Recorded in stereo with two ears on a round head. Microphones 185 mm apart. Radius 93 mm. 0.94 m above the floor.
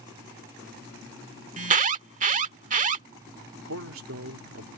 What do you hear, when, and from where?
1.6 s an alarm: 40° right (ahead or behind)
3.6 s a man speaking: 75° right (ahead or behind)